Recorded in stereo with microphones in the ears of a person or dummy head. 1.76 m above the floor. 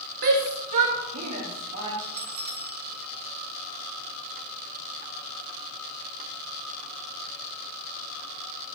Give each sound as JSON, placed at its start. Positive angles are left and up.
{"t": 0.2, "sound": "a shout", "side_deg": -40, "distance_m": 0.7}
{"t": 2.0, "sound": "a bell", "side_deg": -45, "distance_m": 1.1}